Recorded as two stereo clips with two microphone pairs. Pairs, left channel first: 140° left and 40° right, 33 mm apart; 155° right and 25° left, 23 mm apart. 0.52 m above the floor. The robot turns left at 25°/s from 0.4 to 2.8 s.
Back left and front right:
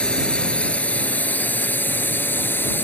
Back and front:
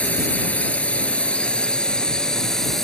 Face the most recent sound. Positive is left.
turn(degrees=135)